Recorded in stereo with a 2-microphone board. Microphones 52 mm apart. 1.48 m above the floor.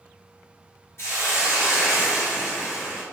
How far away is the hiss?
About 1.1 m.